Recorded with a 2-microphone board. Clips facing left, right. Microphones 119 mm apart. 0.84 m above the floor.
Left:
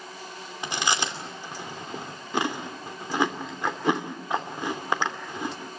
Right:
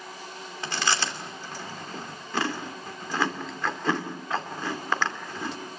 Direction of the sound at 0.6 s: 15° left (ahead or behind).